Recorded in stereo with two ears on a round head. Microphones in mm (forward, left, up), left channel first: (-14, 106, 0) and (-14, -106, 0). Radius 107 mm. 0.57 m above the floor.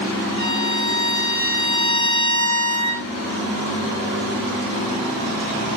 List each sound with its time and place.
0.4 s a violin: 25° left (ahead or behind), 6.5 m